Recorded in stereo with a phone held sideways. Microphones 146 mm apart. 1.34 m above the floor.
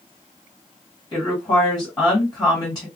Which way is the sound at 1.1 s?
25° left (ahead or behind).